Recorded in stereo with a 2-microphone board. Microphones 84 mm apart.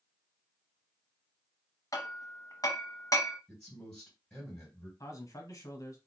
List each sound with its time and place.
1.9 s hammering: 45° left (ahead or behind), 0.9 m
3.5 s a man speaking: 15° left (ahead or behind), 2 m
5.0 s a man speaking: 45° left (ahead or behind), 1.3 m